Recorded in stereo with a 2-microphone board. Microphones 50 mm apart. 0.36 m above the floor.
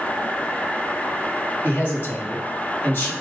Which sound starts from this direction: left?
A man speaking, at 1.6 s.